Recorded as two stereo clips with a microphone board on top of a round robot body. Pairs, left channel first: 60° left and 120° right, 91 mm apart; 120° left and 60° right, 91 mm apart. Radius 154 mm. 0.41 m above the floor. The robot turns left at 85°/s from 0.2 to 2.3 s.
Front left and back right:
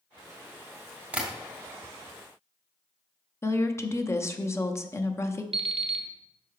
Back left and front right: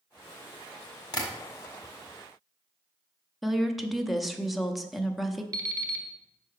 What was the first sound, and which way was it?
Tapping, 165° left.